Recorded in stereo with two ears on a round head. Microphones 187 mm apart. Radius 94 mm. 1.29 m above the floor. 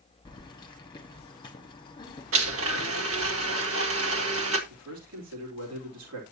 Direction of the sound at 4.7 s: 80° right.